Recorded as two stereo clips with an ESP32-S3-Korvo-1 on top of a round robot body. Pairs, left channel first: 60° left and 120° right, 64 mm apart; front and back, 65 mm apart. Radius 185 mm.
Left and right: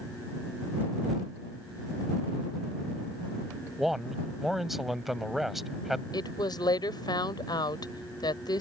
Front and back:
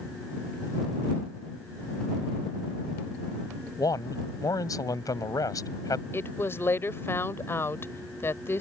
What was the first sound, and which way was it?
A man speaking, 30° right.